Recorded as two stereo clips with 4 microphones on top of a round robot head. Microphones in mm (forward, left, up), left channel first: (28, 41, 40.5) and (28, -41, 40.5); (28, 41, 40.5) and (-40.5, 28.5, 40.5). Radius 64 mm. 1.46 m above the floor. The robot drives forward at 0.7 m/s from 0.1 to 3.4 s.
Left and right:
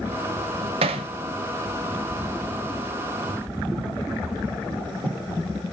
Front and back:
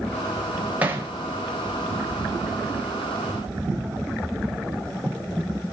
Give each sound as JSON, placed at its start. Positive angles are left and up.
{"t": 0.8, "sound": "hammering", "azimuth_deg": -95, "distance_m": 0.9}